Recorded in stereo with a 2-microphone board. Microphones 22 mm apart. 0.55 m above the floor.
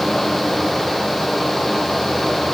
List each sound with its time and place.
Only background noise.